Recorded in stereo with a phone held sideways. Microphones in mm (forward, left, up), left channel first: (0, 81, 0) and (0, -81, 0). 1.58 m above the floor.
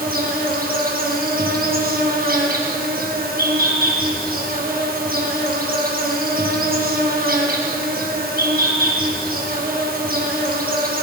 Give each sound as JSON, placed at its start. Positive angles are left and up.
{"t": 0.0, "sound": "an insect", "side_deg": -65, "distance_m": 1.9}